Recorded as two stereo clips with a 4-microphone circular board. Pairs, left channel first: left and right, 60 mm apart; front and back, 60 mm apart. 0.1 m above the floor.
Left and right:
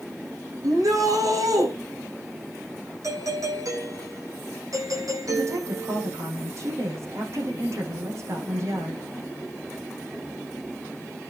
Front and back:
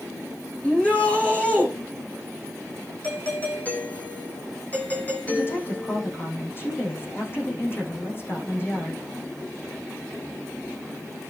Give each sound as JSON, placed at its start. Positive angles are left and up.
{"t": 0.6, "sound": "a shout", "azimuth_deg": -70, "distance_m": 7.0}
{"t": 3.0, "sound": "a doorbell", "azimuth_deg": -65, "distance_m": 6.5}
{"t": 5.3, "sound": "a woman speaking", "azimuth_deg": -50, "distance_m": 6.5}